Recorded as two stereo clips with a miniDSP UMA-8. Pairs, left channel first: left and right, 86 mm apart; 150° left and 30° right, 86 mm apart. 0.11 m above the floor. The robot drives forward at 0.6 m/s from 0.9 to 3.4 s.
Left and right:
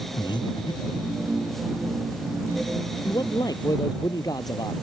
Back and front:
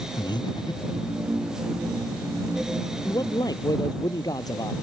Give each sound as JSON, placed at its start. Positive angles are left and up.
{"t": 0.2, "sound": "breathing", "azimuth_deg": 120}
{"t": 3.0, "sound": "a man speaking", "azimuth_deg": 115}